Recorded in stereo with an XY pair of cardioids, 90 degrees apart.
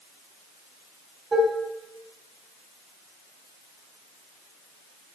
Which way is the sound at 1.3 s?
30° right.